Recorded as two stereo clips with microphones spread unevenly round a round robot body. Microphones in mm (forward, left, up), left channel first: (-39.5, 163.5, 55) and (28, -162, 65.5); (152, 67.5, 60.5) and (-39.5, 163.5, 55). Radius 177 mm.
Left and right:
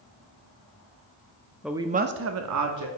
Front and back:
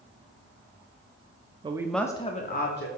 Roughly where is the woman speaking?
Behind.